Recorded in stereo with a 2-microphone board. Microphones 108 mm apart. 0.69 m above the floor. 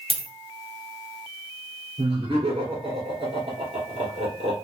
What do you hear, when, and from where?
0.1 s a dropped coin: 60° right (ahead or behind), 1.1 m
2.0 s laughter: 60° right (ahead or behind), 2 m